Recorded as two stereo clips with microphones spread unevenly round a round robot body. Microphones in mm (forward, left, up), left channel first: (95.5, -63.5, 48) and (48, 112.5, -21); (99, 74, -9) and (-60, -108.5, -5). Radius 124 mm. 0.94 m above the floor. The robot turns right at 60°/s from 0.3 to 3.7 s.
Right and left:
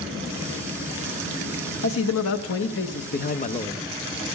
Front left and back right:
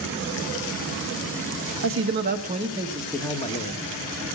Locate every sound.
1.8 s a man speaking: 110° right, 1.0 m; by 3.8 s straight ahead, 1.0 m